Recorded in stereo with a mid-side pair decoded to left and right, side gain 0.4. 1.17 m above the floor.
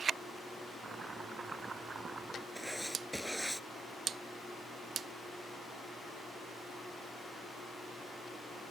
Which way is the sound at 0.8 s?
40° right.